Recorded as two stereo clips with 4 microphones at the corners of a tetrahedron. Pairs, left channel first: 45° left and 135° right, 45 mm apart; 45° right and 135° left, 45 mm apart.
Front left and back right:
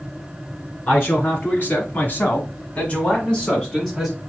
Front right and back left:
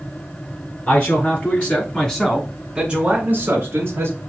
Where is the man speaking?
Straight ahead, 2.5 m; by 4.2 s 135° left, 2.0 m.